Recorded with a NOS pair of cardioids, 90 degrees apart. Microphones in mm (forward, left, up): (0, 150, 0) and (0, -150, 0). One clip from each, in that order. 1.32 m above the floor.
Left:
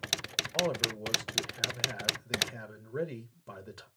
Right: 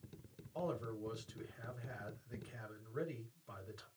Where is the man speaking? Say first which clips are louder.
Left 9 dB; 70° left, 1.4 m.